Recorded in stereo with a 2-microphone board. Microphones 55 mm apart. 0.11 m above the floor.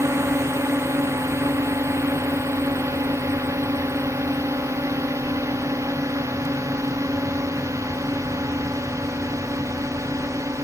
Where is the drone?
60° right (ahead or behind); by 10.7 s 70° right (ahead or behind).